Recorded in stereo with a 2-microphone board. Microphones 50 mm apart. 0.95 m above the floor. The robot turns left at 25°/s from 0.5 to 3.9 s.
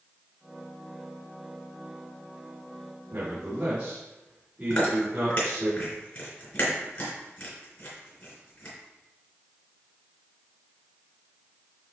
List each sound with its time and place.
3.1 s a man speaking: 40° right (ahead or behind), 3 m; by 5.7 s 20° right (ahead or behind), 3 m
4.7 s chewing: 40° left (ahead or behind), 3.5 m